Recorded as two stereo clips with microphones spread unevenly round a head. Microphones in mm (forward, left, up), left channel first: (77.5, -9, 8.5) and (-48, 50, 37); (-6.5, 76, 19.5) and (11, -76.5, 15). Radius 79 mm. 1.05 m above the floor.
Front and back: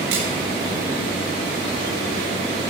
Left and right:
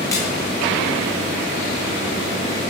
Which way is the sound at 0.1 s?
170° left.